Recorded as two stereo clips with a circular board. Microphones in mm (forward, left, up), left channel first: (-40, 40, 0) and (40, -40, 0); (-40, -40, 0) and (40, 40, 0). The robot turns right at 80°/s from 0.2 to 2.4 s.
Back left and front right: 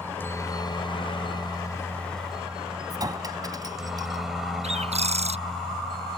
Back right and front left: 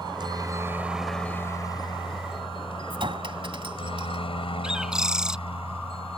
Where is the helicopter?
70° left; by 6.2 s 140° right.